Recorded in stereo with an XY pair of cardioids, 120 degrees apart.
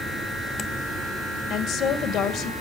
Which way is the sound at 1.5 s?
70° left.